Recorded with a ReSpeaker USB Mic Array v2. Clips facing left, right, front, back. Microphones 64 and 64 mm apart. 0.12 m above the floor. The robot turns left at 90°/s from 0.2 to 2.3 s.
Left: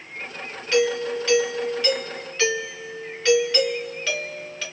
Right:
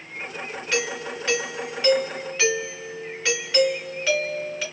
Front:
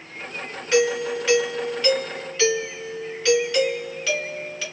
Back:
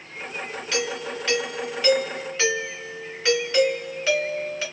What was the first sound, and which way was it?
A doorbell, 15° right.